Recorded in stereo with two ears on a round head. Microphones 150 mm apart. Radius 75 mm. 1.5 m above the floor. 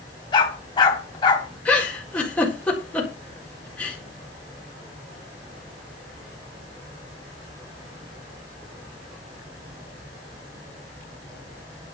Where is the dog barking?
25° left (ahead or behind), 3.5 m.